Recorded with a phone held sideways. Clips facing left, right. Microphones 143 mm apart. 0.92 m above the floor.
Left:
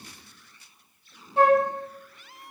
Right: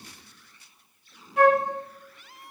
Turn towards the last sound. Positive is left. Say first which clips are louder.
# even
turn(degrees=30)  # may be behind; listen again after turning